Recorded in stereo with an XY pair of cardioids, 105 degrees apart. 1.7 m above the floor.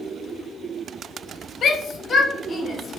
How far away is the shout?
About 0.5 m.